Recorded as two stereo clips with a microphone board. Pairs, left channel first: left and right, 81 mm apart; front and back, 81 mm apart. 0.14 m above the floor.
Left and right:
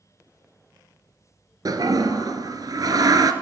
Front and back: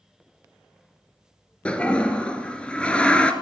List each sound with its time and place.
1.6 s a toilet flushing: 75° right, 1.3 m